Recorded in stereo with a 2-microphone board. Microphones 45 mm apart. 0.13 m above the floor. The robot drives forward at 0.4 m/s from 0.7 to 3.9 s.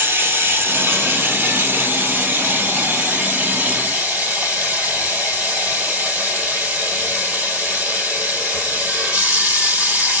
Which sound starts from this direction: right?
Running water, at 0.0 s.